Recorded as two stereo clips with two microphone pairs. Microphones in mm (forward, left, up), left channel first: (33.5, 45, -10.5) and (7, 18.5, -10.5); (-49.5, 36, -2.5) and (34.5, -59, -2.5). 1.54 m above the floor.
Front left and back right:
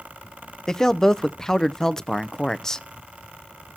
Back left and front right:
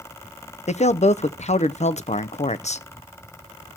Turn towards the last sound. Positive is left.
turn(degrees=115)